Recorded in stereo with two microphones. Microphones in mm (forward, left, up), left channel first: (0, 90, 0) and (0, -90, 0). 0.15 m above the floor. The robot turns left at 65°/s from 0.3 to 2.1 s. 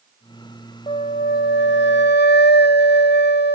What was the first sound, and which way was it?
A flute, 150° left.